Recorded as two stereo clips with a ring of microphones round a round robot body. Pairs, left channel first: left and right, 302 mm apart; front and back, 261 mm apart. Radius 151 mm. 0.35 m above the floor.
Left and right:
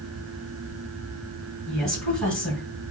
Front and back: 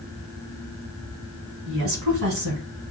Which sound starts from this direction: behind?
A woman speaking, at 1.7 s.